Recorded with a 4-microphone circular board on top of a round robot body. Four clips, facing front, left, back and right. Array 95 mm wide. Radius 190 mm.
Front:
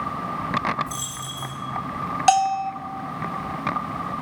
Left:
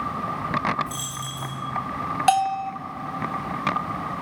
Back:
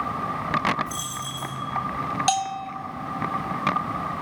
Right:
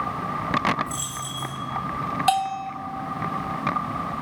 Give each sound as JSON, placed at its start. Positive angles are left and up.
{"t": 0.9, "sound": "a dropped coin", "azimuth_deg": 60, "distance_m": 4.0}
{"t": 2.3, "sound": "a bell", "azimuth_deg": 20, "distance_m": 0.5}